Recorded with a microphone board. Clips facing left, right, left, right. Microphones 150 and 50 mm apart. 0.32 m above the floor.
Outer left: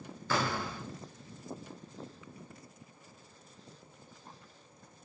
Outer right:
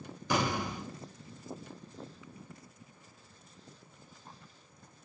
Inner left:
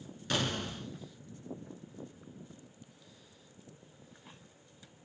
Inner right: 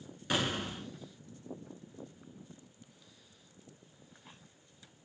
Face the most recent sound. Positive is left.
turn(degrees=-15)  # may be behind; listen again after turning